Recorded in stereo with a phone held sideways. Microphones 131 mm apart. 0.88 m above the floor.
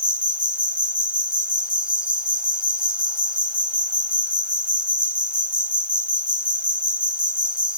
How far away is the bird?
No bird in this recording.